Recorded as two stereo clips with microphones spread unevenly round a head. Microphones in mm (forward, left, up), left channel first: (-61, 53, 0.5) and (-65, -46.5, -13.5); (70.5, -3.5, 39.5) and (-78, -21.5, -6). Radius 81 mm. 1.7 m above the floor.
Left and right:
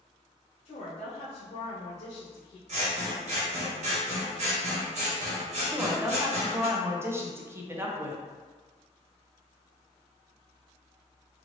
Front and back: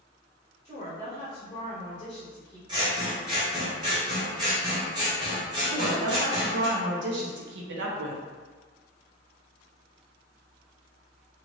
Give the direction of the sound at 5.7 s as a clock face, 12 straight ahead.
5 o'clock.